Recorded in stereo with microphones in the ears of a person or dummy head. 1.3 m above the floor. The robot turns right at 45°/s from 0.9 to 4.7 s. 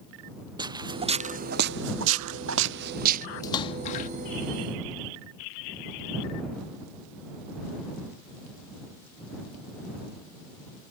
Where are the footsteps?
25° right (ahead or behind); by 3.3 s 40° right (ahead or behind).